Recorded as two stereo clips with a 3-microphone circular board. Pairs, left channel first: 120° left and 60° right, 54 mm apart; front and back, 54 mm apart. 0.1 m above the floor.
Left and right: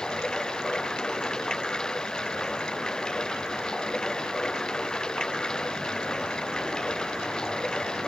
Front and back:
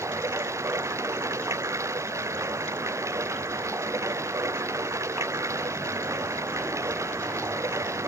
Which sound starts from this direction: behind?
Running water, at 0.0 s.